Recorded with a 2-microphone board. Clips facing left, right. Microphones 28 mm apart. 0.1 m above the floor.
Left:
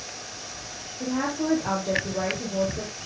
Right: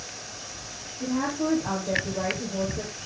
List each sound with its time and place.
1.0 s a woman speaking: 30° left (ahead or behind), 2.5 m